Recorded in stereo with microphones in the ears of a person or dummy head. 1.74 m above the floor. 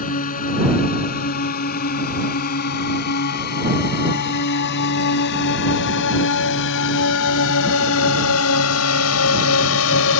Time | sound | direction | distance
0.0 | a drone | 45° left (ahead or behind) | ?